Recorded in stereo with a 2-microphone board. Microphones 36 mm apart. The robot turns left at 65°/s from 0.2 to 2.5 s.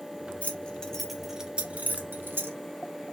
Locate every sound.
0.4 s keys jangling: 40° left (ahead or behind), 0.6 m; by 2.6 s 85° right, 0.6 m